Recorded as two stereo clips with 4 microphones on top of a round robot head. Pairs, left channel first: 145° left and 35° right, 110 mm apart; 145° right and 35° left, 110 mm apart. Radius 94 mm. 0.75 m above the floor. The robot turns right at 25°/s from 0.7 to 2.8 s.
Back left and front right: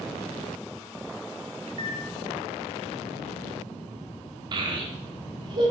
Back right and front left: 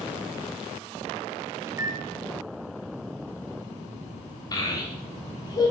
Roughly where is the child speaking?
Right.